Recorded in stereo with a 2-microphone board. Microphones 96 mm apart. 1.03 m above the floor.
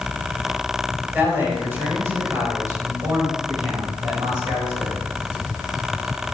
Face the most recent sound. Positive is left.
turn(degrees=-55)  # may be behind; listen again after turning